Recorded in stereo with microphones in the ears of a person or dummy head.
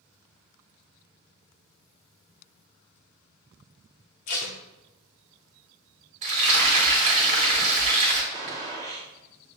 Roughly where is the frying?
Right.